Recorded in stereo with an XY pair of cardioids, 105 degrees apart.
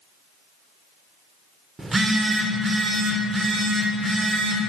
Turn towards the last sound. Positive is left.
turn(degrees=-25)